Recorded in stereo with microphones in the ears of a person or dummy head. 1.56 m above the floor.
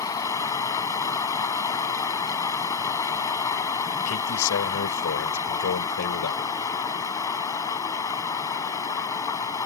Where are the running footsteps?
No running footsteps in this recording.